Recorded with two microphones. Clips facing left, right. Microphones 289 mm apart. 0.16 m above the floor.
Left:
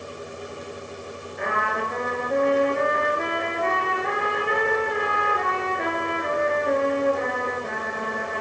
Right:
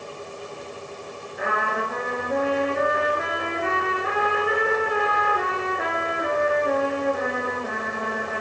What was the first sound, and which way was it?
A trumpet, 5° right (ahead or behind).